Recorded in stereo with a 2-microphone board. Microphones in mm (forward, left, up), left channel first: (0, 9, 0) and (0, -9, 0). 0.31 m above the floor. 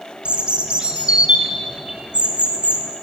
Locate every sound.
0.2 s a bird: 70° right (ahead or behind), 0.7 m